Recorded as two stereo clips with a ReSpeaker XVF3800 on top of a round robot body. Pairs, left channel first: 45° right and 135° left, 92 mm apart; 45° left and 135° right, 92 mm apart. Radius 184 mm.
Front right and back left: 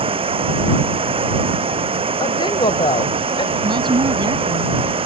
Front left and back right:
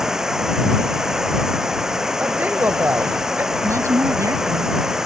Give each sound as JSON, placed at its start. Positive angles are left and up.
{"t": 0.0, "sound": "running water", "azimuth_deg": 140}
{"t": 2.2, "sound": "a woman speaking", "azimuth_deg": -65}
{"t": 3.6, "sound": "a woman speaking", "azimuth_deg": 170}